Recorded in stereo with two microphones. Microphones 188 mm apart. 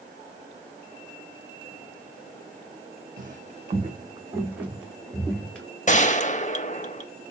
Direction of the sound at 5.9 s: 40° left (ahead or behind).